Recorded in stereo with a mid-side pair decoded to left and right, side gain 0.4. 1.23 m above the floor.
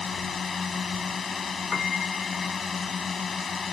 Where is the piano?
45° left.